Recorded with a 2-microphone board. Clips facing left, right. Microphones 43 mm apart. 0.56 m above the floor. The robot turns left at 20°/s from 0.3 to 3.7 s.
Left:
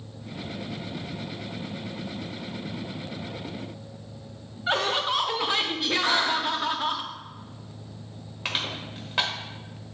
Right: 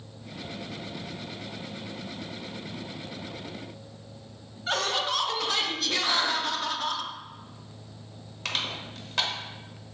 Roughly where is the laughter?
Centre.